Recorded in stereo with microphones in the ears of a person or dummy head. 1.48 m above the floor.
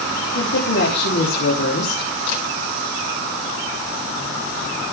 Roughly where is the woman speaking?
Left.